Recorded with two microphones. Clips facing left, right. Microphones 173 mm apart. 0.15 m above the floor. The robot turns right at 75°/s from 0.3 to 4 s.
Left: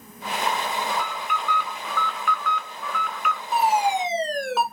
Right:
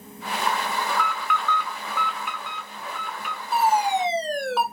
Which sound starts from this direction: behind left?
An alarm, at 0.9 s.